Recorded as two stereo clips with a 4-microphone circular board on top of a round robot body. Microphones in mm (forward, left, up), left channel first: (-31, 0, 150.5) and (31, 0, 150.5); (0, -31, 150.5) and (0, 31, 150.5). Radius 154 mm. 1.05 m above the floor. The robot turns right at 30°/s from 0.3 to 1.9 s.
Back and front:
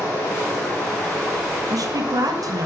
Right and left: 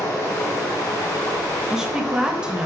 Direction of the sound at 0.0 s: 120° right.